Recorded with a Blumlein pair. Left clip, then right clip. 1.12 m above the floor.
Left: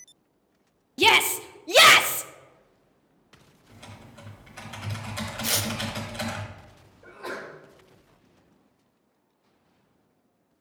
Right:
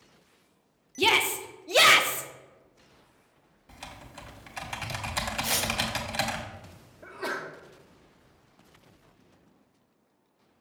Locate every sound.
1.0 s a shout: 15° left, 0.5 m
3.7 s typing on a keyboard: 30° right, 1.6 m
5.4 s tearing paper: 15° left, 1.0 m
7.0 s a sneeze: 40° right, 1.2 m